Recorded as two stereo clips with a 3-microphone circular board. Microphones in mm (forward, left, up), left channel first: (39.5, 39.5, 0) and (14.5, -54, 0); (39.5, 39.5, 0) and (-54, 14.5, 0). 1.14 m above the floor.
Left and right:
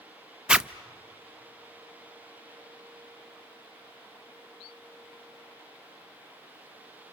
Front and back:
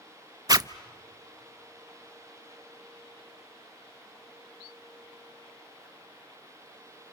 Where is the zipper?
Straight behind, 0.5 m.